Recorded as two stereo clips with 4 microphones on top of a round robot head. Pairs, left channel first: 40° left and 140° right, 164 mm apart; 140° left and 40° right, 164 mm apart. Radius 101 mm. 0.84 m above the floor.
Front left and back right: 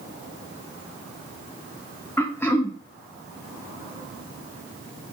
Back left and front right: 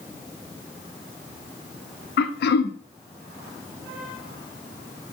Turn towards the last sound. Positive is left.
turn(degrees=120)